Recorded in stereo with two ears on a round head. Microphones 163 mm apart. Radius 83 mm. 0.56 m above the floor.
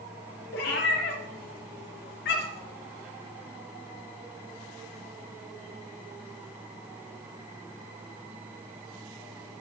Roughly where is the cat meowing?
Left.